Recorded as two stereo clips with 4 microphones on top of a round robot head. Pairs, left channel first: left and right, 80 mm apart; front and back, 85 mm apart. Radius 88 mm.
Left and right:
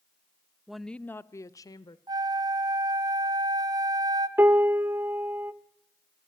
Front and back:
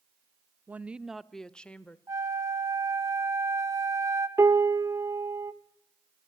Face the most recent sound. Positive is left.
turn(degrees=-140)